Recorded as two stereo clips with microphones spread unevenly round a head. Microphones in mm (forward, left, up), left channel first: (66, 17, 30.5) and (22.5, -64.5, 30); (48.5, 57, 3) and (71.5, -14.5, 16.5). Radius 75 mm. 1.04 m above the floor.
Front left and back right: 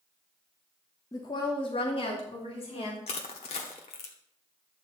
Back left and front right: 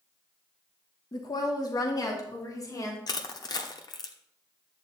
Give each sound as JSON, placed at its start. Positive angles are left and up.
{"t": 1.1, "sound": "a woman speaking", "azimuth_deg": 115, "distance_m": 1.0}
{"t": 3.1, "sound": "crushing", "azimuth_deg": 80, "distance_m": 1.1}